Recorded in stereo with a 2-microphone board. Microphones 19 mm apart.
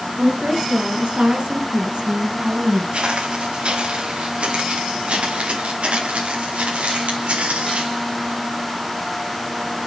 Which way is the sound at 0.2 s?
50° right (ahead or behind).